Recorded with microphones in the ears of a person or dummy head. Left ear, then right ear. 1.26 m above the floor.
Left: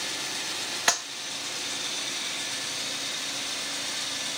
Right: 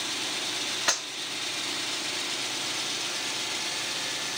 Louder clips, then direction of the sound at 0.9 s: Left 3 dB; 20° left (ahead or behind).